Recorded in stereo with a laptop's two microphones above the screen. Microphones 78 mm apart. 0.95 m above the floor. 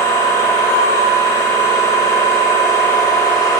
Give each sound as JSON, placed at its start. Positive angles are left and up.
{"t": 0.0, "sound": "a machine running", "side_deg": 40, "distance_m": 6.5}